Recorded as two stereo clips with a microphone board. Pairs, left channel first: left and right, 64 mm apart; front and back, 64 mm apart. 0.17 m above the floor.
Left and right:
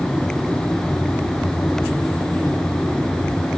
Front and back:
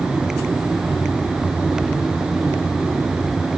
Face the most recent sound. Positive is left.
No sound to turn to.